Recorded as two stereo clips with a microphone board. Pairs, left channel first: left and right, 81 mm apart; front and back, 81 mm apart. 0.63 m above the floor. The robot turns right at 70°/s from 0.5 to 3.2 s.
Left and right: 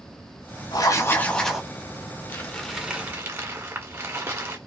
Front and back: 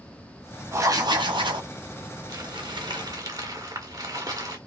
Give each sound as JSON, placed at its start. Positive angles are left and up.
{"t": 0.7, "sound": "writing", "azimuth_deg": 125, "distance_m": 1.2}
{"t": 2.3, "sound": "crumpling", "azimuth_deg": 155, "distance_m": 1.7}